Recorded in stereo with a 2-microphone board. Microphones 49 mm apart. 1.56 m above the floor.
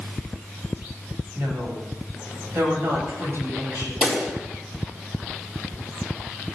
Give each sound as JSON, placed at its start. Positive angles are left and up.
{"t": 1.4, "sound": "a woman speaking", "side_deg": -55, "distance_m": 9.5}
{"t": 4.0, "sound": "a pop", "side_deg": -20, "distance_m": 4.5}